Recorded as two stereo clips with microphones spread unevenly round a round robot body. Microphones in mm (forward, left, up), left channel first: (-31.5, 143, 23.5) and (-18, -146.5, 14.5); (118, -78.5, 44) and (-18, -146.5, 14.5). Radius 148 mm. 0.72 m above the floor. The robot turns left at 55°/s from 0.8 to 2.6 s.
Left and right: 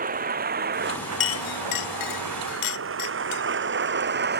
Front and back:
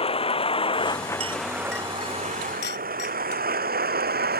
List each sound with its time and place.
0.0 s a vehicle: 25° right; by 4.4 s 145° right
1.2 s a clink: 145° left; by 3.4 s 70° left